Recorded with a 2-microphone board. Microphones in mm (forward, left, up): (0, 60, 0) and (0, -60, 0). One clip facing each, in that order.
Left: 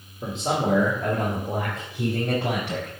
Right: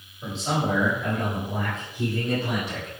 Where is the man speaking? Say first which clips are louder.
Left 2 dB; 55° left (ahead or behind), 2 m; by 2.9 s 75° left (ahead or behind), 3.5 m.